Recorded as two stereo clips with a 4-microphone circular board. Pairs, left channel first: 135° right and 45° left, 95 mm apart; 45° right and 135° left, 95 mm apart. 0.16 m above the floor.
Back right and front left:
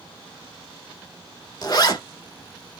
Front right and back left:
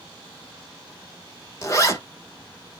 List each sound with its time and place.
1.6 s a zipper: 95° right, 0.7 m